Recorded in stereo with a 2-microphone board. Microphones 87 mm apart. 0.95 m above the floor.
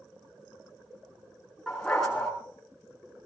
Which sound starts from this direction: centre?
A dog barking, at 1.7 s.